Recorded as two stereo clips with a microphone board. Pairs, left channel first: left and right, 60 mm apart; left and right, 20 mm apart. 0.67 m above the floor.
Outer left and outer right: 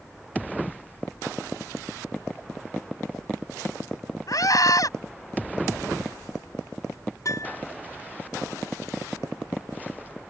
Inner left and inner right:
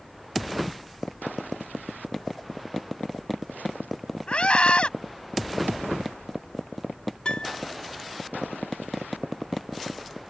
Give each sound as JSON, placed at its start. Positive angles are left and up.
{"t": 4.3, "sound": "a scream", "side_deg": 70}
{"t": 7.2, "sound": "a piano", "side_deg": 60}